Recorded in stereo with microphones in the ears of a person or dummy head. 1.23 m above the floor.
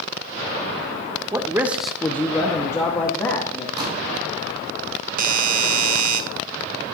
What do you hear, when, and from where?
1.3 s a man speaking: 15° right (ahead or behind), 0.6 m; by 3.7 s 20° left (ahead or behind), 1.5 m
3.8 s a pop: 25° right (ahead or behind), 6 m
5.2 s a doorbell: 40° right (ahead or behind), 0.8 m